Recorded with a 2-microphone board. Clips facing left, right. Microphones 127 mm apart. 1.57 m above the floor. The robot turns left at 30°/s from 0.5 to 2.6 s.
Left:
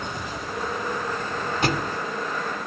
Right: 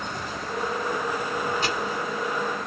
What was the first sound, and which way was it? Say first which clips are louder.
A thud: left 3 dB; 50° left (ahead or behind).